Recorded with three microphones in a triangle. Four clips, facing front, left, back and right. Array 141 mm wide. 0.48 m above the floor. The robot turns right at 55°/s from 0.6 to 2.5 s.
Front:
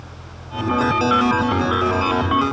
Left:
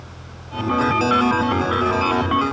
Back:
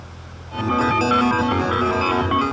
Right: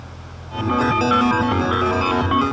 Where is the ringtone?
I don't hear a ringtone.